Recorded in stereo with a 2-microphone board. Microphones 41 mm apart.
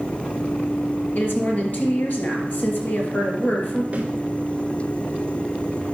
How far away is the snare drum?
About 2 m.